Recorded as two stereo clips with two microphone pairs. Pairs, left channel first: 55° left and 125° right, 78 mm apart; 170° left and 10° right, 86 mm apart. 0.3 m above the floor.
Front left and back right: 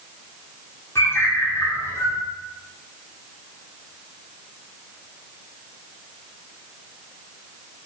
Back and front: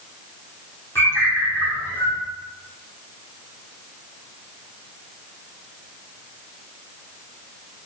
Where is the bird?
110° left, 4 m.